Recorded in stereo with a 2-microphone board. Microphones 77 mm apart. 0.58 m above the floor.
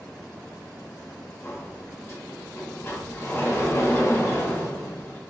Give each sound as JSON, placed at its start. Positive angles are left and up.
{"t": 1.4, "sound": "a sliding door", "side_deg": 35, "distance_m": 1.1}